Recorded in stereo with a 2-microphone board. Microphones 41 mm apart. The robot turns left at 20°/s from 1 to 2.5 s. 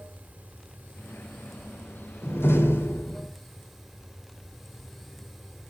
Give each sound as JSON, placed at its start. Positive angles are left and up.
{"t": 0.0, "sound": "running water", "azimuth_deg": -145, "distance_m": 1.2}
{"t": 2.2, "sound": "a door slam", "side_deg": 80, "distance_m": 2.5}